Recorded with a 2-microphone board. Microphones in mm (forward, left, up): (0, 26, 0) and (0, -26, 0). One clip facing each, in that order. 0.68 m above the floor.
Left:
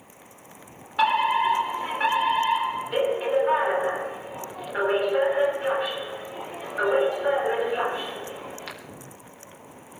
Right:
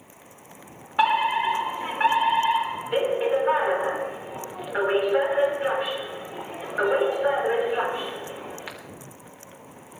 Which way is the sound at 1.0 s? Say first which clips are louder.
Even; 15° right (ahead or behind).